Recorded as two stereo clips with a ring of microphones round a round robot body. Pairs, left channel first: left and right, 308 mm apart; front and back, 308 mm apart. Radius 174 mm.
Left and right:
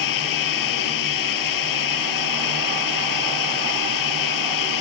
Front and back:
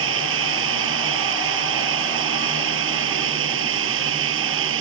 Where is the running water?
125° left.